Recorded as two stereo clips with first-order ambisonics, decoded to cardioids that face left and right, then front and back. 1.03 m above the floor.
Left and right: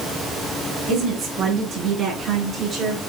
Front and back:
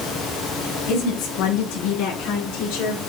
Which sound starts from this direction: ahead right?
A woman speaking, at 0.9 s.